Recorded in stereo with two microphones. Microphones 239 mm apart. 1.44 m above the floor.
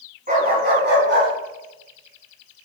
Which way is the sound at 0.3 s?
40° right (ahead or behind).